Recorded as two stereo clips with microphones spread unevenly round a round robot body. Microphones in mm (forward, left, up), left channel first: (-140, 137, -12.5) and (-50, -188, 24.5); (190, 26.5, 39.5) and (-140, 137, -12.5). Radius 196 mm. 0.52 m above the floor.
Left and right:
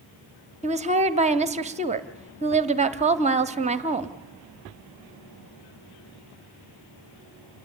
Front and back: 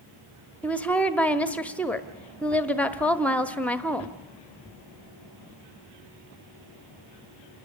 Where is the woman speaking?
125° right, 1.0 m.